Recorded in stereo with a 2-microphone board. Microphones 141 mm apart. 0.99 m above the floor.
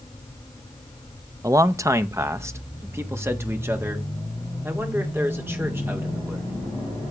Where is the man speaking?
20° right (ahead or behind), 0.6 m; by 6.5 s 15° right (ahead or behind), 3.5 m.